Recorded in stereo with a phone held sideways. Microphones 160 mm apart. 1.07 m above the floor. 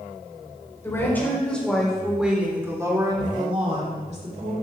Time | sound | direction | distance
0.8 | a woman speaking | 15° left (ahead or behind) | 4 m